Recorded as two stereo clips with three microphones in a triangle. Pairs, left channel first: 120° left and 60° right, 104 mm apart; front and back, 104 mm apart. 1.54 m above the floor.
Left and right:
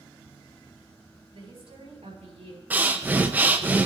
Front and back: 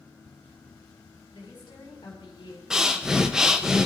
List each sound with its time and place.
1.3 s a woman speaking: 45° right, 5 m
2.7 s breathing: 105° right, 0.7 m